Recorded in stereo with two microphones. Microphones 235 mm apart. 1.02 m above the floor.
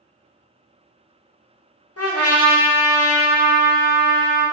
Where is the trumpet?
80° left, 0.7 m.